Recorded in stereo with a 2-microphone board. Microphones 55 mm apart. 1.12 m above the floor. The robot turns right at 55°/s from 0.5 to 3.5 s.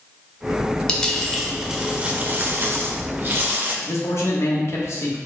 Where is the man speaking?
55° left (ahead or behind), 0.9 m.